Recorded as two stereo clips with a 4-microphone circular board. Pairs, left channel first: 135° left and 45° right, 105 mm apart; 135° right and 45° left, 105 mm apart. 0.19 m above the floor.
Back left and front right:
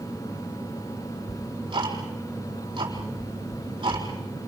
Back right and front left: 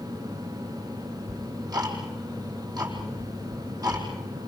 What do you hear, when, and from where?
1.3 s ticking: 5° right, 4 m